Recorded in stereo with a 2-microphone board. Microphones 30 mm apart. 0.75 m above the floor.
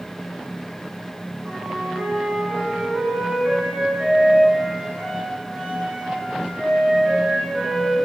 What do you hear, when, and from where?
1.4 s a flute: 80° right, 4.5 m